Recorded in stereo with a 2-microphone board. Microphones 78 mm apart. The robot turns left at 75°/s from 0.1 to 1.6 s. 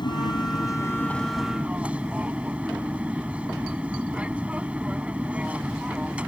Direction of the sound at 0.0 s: 95° left.